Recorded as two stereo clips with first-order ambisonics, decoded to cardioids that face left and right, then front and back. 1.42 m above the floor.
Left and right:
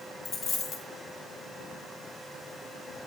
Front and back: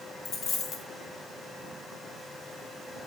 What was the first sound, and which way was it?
A dropped coin, 15° left.